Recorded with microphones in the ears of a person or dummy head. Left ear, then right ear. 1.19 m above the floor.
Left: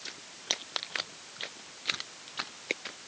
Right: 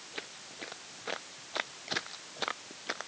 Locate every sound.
Only background noise.